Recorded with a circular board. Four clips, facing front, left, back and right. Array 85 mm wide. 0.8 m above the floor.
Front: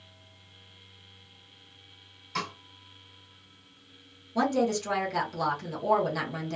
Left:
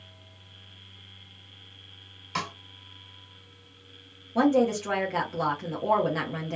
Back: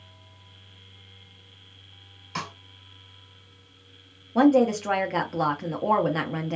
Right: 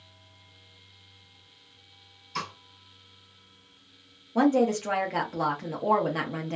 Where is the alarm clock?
I don't hear an alarm clock.